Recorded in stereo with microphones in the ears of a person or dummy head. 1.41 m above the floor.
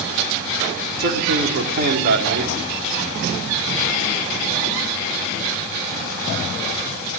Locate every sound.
1.0 s a man speaking: 55° right (ahead or behind), 3.5 m